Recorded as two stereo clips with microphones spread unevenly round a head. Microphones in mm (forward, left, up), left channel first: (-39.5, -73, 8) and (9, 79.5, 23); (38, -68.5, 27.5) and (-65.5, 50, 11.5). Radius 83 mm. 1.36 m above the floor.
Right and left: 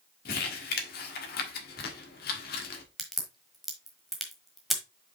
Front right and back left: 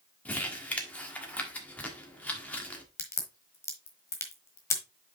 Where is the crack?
5° right, 1.3 m.